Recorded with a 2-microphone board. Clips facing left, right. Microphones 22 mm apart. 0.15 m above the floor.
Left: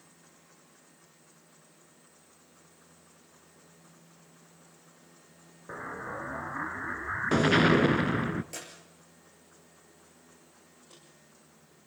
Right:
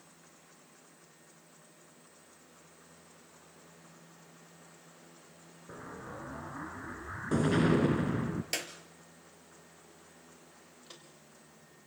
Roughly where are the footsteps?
Right.